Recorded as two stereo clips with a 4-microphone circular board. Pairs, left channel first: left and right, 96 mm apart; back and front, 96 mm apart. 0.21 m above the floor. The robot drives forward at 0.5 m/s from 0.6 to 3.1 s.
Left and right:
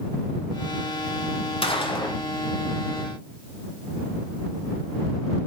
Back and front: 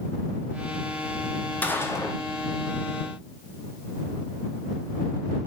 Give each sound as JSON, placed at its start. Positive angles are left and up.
{"t": 1.6, "sound": "a gunshot", "azimuth_deg": 105, "distance_m": 0.6}